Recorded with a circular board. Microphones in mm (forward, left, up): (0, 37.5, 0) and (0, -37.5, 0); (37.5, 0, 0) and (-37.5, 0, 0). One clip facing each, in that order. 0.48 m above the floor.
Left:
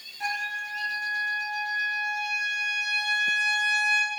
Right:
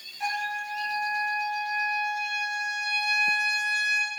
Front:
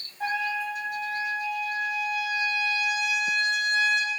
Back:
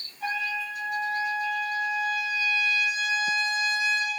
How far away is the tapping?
I don't hear tapping.